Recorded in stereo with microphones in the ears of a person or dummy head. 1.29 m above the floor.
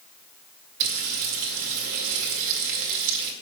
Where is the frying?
65° right (ahead or behind), 2 m.